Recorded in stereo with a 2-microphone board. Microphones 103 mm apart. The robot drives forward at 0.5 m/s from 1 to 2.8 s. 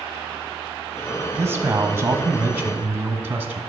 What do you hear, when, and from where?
1.4 s a man speaking: 25° right (ahead or behind), 1.0 m; by 3.6 s 20° right (ahead or behind), 1.2 m